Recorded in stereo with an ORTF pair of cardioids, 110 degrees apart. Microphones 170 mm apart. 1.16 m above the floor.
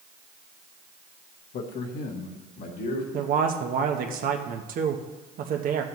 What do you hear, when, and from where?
1.5 s a man speaking: 65° left, 1.2 m; by 3.0 s 70° left, 2.5 m
3.1 s a man speaking: 60° right, 1.0 m